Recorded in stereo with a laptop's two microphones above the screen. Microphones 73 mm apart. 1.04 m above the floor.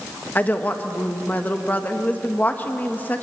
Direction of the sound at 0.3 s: 25° left (ahead or behind).